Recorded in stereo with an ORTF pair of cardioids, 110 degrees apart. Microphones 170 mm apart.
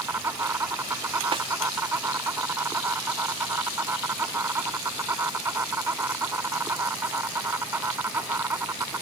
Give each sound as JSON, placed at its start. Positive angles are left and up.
{"t": 0.0, "sound": "an insect", "azimuth_deg": -15}
{"t": 1.3, "sound": "a snare drum", "azimuth_deg": -30}